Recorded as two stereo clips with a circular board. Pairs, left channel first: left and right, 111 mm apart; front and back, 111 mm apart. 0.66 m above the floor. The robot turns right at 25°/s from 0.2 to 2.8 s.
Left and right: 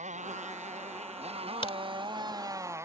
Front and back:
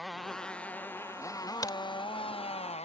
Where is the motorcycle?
90° right; by 2.9 s 25° right.